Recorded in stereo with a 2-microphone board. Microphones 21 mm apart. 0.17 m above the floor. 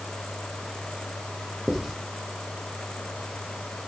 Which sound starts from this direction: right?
Writing, at 1.7 s.